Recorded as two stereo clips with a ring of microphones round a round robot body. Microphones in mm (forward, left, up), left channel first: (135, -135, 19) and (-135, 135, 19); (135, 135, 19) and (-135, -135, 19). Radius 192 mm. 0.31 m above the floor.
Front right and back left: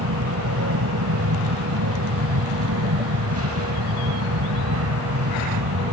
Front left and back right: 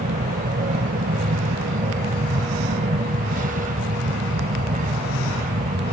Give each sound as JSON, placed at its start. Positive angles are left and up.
{"t": 0.0, "sound": "an aircraft", "azimuth_deg": 165}